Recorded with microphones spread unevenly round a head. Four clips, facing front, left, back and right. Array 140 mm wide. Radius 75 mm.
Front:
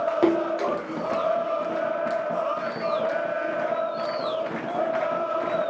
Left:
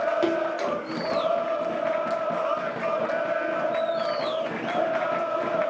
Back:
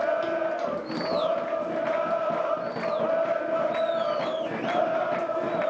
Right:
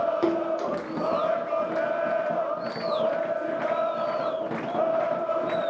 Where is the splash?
5° right, 1.2 m.